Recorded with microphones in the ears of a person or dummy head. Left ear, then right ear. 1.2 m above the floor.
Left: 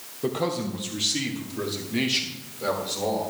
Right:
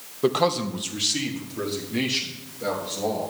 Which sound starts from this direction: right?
A man speaking, at 0.2 s.